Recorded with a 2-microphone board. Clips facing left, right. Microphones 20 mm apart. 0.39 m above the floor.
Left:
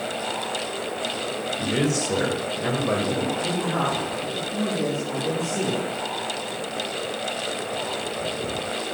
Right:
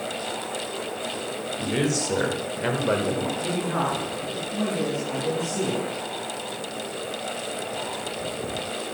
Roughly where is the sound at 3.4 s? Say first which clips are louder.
Left 1 dB; right.